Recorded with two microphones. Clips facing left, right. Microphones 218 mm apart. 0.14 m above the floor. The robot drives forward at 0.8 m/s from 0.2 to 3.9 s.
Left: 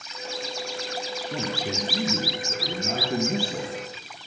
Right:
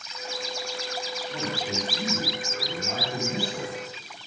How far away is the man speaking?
About 2.5 m.